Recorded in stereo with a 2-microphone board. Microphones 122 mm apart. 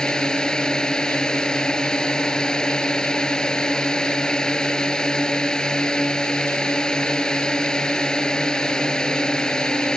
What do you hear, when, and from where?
0.0 s a drone: 5° left (ahead or behind)